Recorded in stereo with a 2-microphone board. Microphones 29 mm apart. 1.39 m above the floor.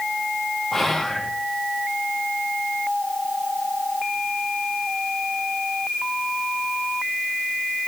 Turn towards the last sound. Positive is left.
turn(degrees=5)  # may be behind; listen again after turning